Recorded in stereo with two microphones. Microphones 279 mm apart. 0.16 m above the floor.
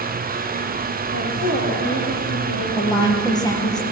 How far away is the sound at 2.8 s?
About 4 m.